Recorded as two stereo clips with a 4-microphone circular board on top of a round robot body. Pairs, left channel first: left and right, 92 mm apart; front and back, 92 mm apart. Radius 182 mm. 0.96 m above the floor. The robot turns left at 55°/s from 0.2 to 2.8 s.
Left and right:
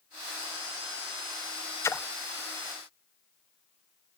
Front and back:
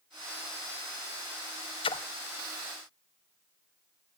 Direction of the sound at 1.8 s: 25° left.